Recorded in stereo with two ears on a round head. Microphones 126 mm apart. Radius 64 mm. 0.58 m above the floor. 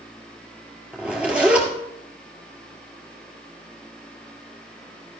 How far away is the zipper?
About 2 m.